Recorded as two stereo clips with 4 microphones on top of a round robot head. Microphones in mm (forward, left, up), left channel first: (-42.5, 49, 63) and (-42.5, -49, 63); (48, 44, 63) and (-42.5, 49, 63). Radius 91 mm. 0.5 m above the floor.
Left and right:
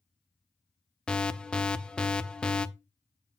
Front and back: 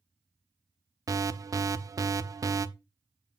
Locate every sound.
1.1 s an alarm: 165° left, 0.7 m